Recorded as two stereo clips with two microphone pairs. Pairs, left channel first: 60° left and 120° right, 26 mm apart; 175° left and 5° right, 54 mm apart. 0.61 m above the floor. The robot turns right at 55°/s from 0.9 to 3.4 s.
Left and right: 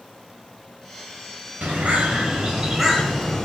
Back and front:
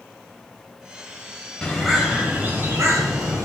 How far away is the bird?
About 2.5 m.